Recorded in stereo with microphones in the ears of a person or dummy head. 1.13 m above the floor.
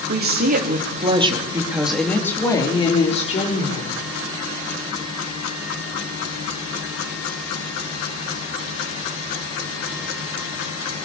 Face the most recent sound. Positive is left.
turn(degrees=40)  # may be behind; listen again after turning